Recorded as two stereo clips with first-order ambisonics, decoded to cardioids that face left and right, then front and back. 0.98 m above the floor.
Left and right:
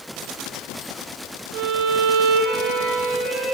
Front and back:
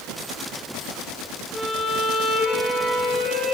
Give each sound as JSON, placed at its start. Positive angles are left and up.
{"t": 1.5, "sound": "a violin", "azimuth_deg": -90, "distance_m": 2.0}